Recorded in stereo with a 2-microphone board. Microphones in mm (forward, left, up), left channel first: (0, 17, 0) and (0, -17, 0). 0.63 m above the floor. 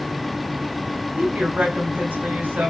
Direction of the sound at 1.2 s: 60° right (ahead or behind).